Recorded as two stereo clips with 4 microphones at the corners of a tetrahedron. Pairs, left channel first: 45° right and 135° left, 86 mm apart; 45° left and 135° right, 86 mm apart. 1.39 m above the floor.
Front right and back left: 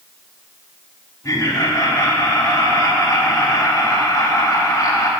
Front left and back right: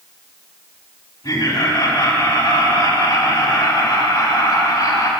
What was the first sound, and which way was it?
Laughter, 10° left.